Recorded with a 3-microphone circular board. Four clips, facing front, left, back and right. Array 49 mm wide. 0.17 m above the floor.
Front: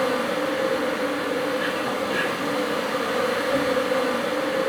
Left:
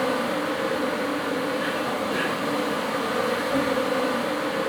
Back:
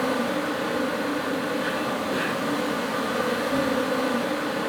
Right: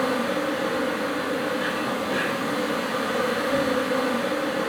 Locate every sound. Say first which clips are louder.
0.0 s an insect: even, front 2 dB; 15° right, 3.5 m